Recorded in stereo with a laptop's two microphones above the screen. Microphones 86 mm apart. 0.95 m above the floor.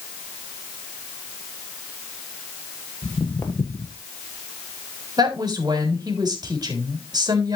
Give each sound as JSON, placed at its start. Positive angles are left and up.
{"t": 3.0, "sound": "footsteps", "side_deg": 30, "distance_m": 1.2}
{"t": 5.2, "sound": "a woman speaking", "side_deg": -55, "distance_m": 3.5}